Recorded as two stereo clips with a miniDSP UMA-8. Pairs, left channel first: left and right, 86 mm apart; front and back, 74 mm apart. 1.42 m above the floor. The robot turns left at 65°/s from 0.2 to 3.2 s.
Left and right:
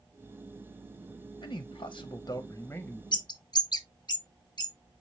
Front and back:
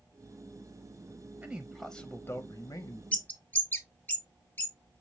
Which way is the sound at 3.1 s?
70° left.